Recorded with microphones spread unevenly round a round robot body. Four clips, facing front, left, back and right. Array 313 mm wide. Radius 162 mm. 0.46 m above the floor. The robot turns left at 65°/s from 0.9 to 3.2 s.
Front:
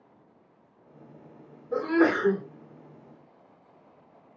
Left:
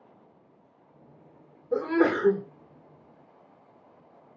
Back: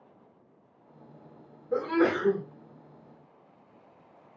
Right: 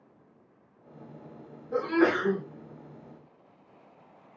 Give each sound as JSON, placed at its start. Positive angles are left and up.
{"t": 1.7, "sound": "a sneeze", "azimuth_deg": 105, "distance_m": 1.8}